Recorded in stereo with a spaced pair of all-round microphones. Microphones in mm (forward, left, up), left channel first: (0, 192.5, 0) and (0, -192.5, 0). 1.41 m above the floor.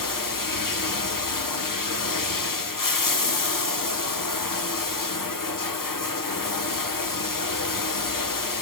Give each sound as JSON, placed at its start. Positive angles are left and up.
{"t": 0.0, "sound": "running water", "side_deg": 55, "distance_m": 0.8}